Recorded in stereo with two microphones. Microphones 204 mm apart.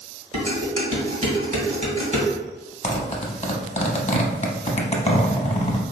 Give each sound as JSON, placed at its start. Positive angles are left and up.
{"t": 0.3, "sound": "dishes clattering", "side_deg": -40, "distance_m": 1.4}
{"t": 2.8, "sound": "a zipper", "side_deg": 30, "distance_m": 0.6}